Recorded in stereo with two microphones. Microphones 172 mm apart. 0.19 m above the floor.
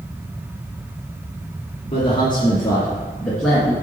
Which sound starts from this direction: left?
A man speaking, at 1.9 s.